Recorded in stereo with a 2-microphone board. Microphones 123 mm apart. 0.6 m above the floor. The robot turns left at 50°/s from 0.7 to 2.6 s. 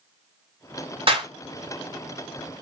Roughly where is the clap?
Right.